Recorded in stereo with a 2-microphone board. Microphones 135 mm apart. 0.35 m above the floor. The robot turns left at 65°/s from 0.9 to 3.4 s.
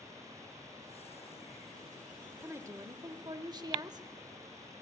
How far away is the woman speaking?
About 0.9 m.